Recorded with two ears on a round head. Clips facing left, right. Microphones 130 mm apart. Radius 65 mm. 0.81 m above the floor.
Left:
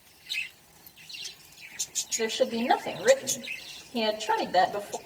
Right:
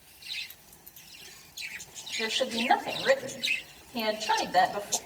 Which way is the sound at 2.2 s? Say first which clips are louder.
Left 5 dB; 45° left (ahead or behind).